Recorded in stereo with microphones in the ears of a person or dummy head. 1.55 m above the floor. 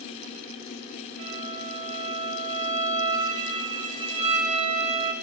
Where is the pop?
I don't hear a pop.